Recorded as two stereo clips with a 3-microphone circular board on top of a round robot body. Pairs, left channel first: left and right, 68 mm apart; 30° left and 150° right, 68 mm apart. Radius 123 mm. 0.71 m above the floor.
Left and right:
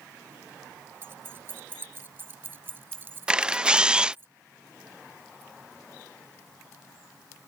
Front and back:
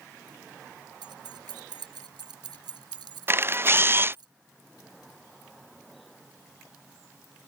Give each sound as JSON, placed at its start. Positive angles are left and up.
{"t": 1.0, "sound": "keys jangling", "azimuth_deg": -150}
{"t": 3.3, "sound": "a camera shutter", "azimuth_deg": -155}